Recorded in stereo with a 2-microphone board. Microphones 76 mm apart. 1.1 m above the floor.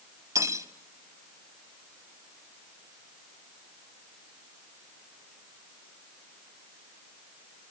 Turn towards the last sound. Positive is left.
turn(degrees=-40)  # may be behind; listen again after turning